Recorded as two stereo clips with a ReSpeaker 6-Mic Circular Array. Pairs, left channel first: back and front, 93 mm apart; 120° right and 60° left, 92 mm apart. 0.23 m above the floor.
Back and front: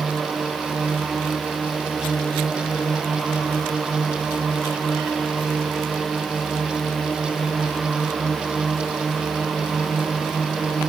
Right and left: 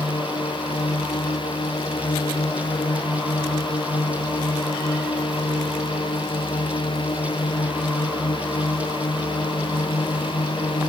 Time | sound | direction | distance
0.0 | a drone | 95° right | ?